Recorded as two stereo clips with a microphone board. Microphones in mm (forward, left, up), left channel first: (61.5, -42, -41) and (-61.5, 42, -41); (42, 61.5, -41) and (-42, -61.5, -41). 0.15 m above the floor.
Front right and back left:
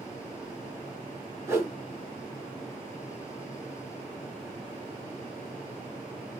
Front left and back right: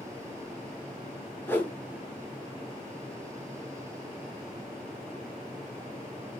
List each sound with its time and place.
1.5 s a whoosh: 110° left, 1.6 m